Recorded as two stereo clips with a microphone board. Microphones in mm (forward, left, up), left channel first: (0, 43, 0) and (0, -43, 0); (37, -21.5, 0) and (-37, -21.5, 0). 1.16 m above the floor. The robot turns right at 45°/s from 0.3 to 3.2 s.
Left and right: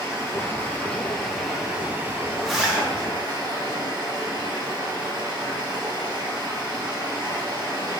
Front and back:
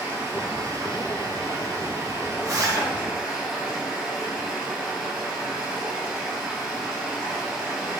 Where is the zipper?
175° left, 0.9 m; by 2.9 s 160° right, 0.9 m.